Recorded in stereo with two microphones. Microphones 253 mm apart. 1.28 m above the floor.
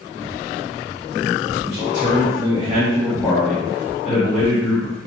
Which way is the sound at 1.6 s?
40° right (ahead or behind).